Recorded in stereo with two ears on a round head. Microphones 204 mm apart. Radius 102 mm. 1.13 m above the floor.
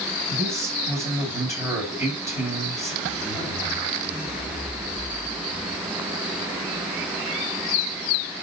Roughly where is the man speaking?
Centre.